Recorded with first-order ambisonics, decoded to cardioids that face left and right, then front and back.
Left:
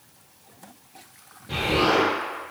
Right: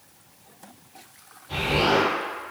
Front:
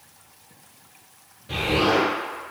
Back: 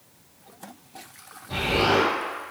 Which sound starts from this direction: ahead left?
An explosion, at 1.5 s.